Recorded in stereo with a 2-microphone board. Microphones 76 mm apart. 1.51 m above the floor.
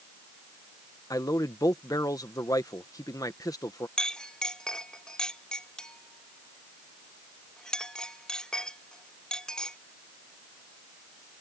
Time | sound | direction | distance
1.1 | a man speaking | 50° left (ahead or behind) | ?
4.0 | a clink | 10° left (ahead or behind) | ?